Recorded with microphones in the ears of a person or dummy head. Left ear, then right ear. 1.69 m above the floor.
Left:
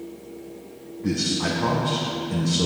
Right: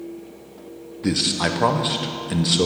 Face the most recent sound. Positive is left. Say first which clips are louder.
# right 3 dB
turn(degrees=-40)  # may be behind; listen again after turning